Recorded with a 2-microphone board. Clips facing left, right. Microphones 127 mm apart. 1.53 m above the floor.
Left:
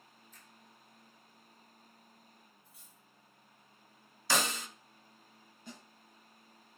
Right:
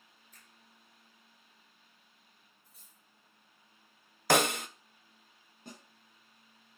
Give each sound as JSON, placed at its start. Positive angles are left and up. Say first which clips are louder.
{"t": 0.3, "sound": "a finger snap", "louder": "left 3 dB", "side_deg": -60, "distance_m": 3.0}
{"t": 2.6, "sound": "cutlery clinking", "louder": "left 3 dB", "side_deg": -50, "distance_m": 4.0}
{"t": 4.3, "sound": "a snare drum", "louder": "right 7 dB", "side_deg": -60, "distance_m": 0.6}
{"t": 5.7, "sound": "a snare drum", "louder": "even", "side_deg": -60, "distance_m": 2.5}